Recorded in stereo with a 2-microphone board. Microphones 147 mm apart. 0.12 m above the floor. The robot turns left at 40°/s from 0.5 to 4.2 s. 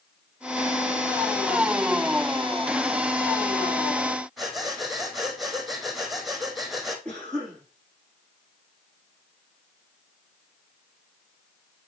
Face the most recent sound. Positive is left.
turn(degrees=10)  # may be behind; listen again after turning